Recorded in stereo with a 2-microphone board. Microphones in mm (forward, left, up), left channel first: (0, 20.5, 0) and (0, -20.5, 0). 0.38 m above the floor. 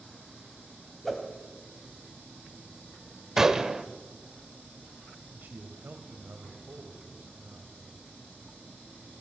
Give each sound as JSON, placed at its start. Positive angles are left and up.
{"t": 1.0, "sound": "a whoosh", "side_deg": 0, "distance_m": 1.4}
{"t": 3.4, "sound": "a gunshot", "side_deg": -10, "distance_m": 0.6}
{"t": 5.3, "sound": "a man speaking", "side_deg": -50, "distance_m": 2.0}